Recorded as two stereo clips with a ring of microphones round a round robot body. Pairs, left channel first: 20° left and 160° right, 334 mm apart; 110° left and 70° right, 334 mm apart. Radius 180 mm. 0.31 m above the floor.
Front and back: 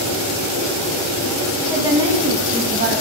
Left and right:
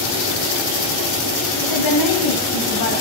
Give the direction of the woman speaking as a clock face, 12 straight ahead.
8 o'clock.